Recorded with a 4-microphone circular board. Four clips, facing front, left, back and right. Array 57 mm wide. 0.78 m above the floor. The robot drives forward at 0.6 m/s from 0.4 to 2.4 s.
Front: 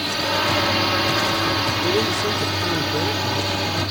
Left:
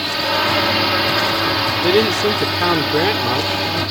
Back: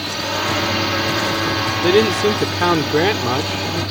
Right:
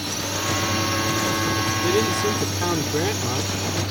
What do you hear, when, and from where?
0.0 s a drone: 90° left
1.8 s a man speaking: 145° left; by 3.8 s 150° left